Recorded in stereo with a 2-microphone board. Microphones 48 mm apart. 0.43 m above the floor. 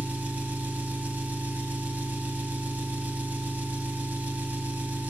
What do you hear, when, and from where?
0.0 s an engine running: 40° right (ahead or behind), 1.6 m